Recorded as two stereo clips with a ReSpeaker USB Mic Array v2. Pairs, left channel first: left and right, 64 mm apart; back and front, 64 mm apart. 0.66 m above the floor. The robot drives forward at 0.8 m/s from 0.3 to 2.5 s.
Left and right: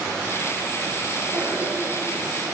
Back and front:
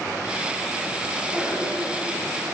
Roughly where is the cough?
Ahead right.